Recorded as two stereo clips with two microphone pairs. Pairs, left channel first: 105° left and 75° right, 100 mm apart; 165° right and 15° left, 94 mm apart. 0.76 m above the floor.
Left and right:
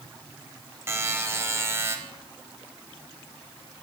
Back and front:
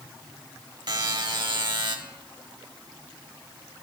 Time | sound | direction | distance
0.9 | a buzzer | 15° right | 0.8 m